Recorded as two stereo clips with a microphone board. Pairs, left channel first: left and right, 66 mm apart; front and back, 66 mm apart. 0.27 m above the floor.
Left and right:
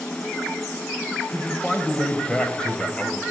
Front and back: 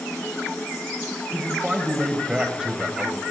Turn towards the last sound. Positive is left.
turn(degrees=130)